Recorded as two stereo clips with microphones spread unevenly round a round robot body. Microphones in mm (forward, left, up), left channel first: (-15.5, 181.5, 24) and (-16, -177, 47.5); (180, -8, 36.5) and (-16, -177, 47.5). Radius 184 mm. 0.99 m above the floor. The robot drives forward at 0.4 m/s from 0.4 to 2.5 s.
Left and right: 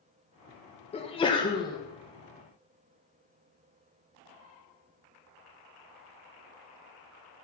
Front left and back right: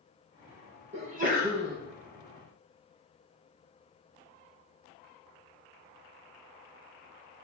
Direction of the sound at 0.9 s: 155° left.